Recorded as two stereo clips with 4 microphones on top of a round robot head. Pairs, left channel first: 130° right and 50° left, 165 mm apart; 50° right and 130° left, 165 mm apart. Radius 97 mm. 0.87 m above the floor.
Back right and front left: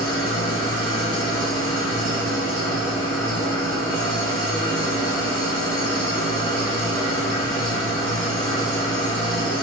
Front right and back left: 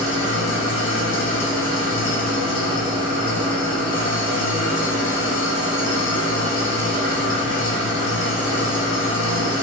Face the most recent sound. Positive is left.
turn(degrees=-65)